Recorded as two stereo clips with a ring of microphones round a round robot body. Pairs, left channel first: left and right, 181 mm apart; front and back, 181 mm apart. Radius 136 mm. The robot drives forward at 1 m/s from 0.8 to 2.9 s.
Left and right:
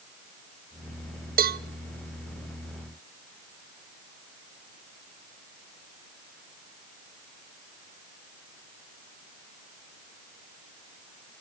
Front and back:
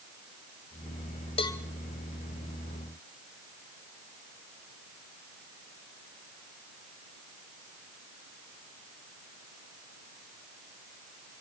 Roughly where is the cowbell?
Ahead right.